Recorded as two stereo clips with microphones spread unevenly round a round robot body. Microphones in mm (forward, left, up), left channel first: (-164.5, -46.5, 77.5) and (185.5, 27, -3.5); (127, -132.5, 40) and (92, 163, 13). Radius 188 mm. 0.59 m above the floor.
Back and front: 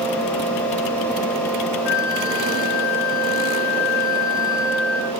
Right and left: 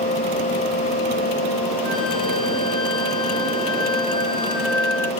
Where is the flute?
160° right, 2 m.